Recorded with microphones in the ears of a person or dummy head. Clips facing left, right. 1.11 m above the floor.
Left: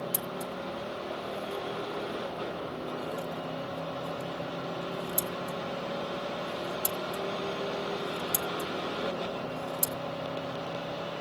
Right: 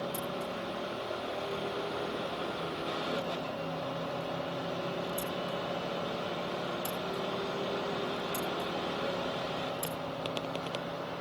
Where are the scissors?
25° left (ahead or behind), 1.0 m.